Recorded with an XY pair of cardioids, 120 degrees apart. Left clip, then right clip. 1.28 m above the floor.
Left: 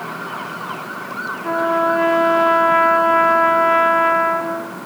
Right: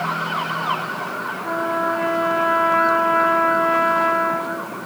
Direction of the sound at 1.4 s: 30° left.